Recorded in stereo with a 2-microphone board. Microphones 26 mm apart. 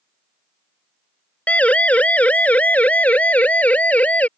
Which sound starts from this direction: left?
A siren, at 1.5 s.